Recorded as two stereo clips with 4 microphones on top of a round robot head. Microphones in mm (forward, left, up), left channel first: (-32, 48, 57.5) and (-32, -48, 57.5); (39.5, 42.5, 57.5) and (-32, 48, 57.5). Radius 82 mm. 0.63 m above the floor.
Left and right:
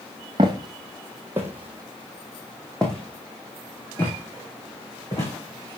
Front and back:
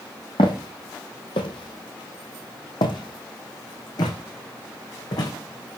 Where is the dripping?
No dripping in this recording.